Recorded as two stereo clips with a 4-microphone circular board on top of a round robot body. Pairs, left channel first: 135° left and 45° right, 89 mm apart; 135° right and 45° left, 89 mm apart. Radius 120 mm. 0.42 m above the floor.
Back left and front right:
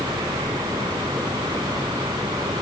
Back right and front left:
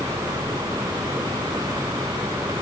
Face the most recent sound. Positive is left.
No sound to turn to.